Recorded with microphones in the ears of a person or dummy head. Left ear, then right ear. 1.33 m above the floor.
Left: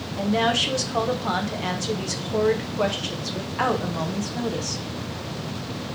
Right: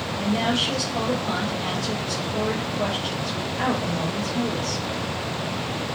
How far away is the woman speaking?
About 1.0 m.